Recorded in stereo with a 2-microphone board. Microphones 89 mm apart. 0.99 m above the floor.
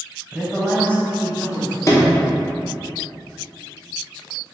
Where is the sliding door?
35° left (ahead or behind), 0.8 m.